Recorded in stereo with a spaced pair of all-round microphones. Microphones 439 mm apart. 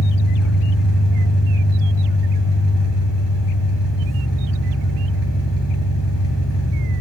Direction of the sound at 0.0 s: 70° left (ahead or behind).